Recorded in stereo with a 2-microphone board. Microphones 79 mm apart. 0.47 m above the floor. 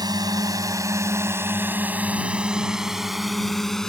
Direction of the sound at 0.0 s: 60° right (ahead or behind).